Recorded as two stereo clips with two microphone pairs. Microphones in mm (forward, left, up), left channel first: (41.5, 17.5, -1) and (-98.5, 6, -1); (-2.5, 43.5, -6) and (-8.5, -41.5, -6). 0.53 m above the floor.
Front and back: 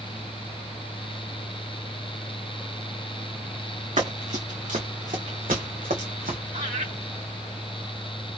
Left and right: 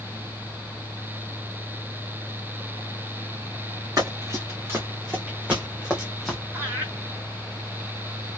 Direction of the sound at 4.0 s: 145° right.